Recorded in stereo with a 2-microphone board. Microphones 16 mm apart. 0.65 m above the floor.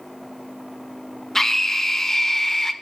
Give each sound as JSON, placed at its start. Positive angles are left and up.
{"t": 1.4, "sound": "a scream", "side_deg": 30, "distance_m": 2.5}